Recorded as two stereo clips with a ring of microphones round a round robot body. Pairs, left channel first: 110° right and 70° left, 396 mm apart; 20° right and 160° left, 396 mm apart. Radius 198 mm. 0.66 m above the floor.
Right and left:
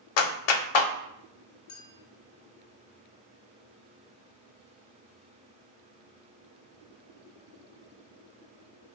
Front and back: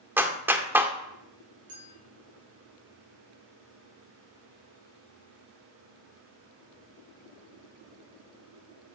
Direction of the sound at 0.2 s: 120° right.